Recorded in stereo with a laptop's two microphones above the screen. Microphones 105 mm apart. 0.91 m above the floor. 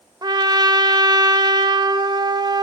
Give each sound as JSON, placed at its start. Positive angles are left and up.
{"t": 0.2, "sound": "a trumpet", "side_deg": -40, "distance_m": 0.9}